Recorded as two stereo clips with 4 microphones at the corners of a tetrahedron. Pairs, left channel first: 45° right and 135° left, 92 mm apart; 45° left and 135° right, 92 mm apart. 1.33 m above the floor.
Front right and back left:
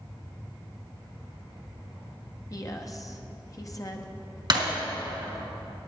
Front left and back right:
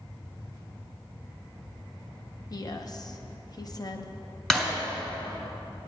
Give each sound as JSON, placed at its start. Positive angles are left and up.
{"t": 2.5, "sound": "a woman speaking", "azimuth_deg": 5, "distance_m": 0.8}
{"t": 4.5, "sound": "breaking glass", "azimuth_deg": 125, "distance_m": 1.9}